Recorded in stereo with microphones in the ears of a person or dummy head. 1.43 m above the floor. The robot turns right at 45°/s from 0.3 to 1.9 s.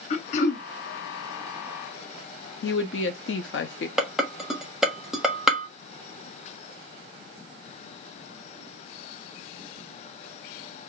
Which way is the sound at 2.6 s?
60° left (ahead or behind).